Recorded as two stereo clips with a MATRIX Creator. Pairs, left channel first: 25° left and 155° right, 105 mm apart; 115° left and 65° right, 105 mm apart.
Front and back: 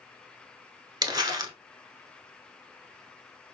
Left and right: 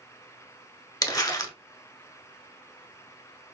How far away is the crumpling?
About 0.7 m.